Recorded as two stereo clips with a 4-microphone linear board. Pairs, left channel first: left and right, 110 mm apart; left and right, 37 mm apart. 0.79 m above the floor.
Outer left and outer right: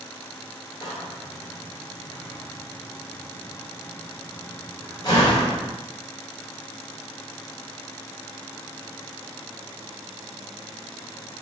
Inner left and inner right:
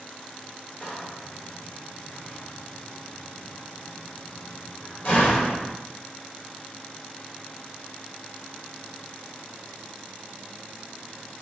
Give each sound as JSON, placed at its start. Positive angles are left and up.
{"t": 0.8, "sound": "a door slam", "side_deg": 40, "distance_m": 2.5}